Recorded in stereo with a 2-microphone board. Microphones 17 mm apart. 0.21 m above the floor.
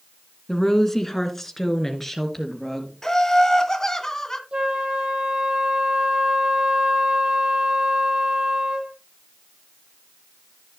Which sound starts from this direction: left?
Laughter, at 3.0 s.